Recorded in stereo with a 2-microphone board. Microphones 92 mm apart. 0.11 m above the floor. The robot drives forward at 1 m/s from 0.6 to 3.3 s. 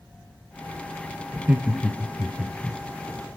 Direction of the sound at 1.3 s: 15° right (ahead or behind).